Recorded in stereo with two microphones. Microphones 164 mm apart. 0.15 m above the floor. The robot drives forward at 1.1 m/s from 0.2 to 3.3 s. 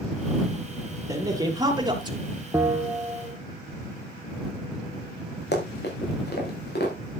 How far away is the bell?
About 0.9 m.